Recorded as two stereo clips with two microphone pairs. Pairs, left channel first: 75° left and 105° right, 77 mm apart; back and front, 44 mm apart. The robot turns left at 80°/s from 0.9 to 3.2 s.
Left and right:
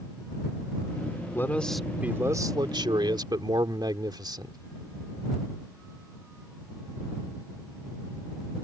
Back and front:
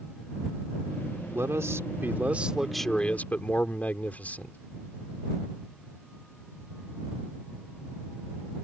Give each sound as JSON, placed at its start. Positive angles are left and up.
{"t": 1.3, "sound": "a man speaking", "azimuth_deg": 20}